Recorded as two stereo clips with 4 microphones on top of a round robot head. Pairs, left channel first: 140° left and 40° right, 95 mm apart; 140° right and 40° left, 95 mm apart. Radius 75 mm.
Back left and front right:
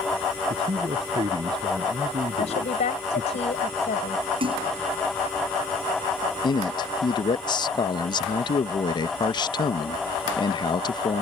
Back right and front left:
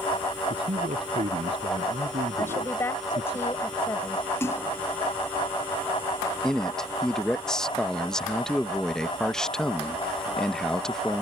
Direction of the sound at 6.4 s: 135° left.